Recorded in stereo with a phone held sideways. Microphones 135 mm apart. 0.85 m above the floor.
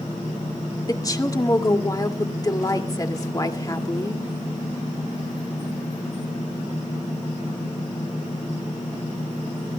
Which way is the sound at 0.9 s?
30° left (ahead or behind).